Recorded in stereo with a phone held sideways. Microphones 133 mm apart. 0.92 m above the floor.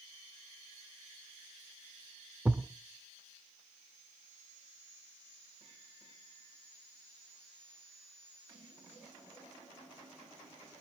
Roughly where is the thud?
Centre.